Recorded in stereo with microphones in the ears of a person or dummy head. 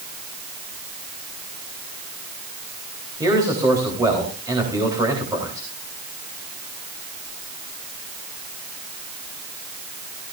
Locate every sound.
3.2 s a man speaking: 10° right (ahead or behind), 3.5 m